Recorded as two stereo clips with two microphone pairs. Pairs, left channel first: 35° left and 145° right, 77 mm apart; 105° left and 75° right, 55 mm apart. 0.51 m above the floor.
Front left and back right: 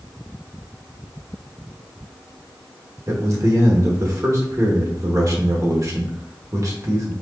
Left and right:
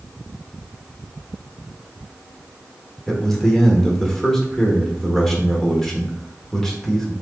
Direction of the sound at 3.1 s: 175° right.